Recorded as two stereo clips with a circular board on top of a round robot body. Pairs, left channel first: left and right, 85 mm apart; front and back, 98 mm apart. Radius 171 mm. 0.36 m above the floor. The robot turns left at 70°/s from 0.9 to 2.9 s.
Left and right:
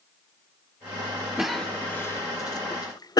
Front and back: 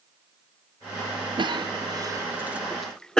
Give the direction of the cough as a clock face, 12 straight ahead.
6 o'clock.